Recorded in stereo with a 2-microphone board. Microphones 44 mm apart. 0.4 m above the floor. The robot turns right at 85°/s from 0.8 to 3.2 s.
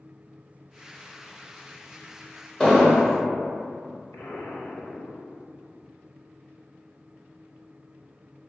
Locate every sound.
2.6 s an explosion: 165° left, 0.7 m; by 3.1 s 150° right, 0.7 m
4.1 s an explosion: 70° left (ahead or behind), 0.6 m